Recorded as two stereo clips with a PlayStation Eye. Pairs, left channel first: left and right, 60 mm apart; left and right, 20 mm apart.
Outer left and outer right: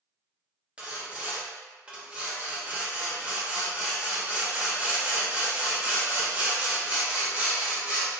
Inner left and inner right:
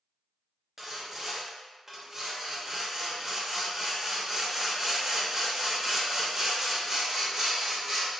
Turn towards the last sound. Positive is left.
turn(degrees=-20)  # may be behind; listen again after turning